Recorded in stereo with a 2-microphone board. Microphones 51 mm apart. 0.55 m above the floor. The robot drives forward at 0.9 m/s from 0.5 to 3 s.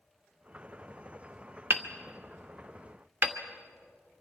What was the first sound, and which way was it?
Hammering, 40° right (ahead or behind).